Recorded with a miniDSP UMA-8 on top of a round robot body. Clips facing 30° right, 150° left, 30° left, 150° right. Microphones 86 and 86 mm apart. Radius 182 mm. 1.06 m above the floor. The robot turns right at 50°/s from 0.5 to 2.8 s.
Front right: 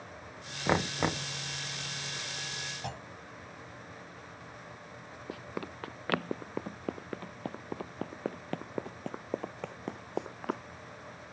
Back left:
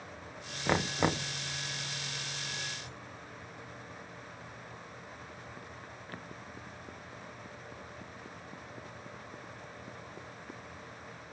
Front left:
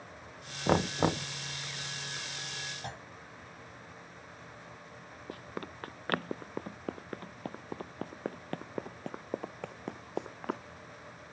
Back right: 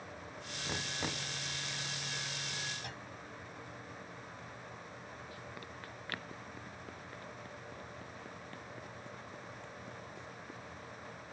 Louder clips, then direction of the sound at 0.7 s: Even, front left 14 dB; 45° left.